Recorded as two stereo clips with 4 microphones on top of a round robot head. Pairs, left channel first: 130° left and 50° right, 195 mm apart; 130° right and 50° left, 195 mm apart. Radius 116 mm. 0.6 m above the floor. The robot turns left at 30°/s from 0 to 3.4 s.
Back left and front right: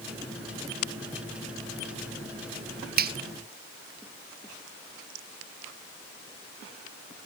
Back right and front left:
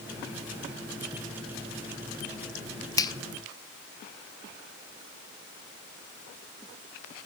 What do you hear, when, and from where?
3.0 s a finger snap: 60° right, 0.7 m; by 3.1 s 65° right, 0.7 m